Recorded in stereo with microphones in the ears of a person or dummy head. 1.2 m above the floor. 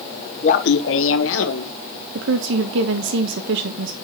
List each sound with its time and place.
0.4 s laughter: 35° left (ahead or behind), 0.8 m; by 1.7 s 65° left (ahead or behind), 1.8 m
2.1 s a woman speaking: 60° right (ahead or behind), 1.1 m